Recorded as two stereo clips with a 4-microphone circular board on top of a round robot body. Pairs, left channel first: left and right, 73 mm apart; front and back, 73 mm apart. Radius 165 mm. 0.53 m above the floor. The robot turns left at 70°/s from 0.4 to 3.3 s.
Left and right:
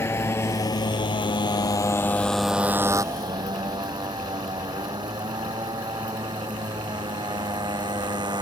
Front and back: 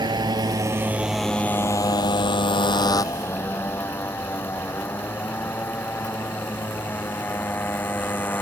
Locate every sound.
0.0 s a motorcycle: 150° left; by 8.4 s 65° right